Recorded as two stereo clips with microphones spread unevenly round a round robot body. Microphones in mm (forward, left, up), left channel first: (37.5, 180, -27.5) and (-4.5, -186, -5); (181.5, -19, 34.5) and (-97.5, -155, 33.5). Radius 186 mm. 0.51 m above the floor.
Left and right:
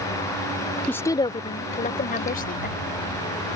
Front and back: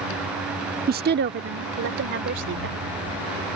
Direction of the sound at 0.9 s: 165° left.